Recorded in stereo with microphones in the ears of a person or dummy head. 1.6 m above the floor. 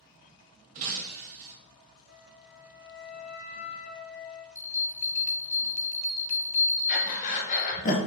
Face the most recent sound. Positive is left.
turn(degrees=50)  # may be behind; listen again after turning